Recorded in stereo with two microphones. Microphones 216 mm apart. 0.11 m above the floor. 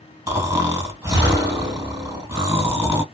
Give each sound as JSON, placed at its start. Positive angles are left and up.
{"t": 0.3, "sound": "snoring", "side_deg": -15, "distance_m": 1.5}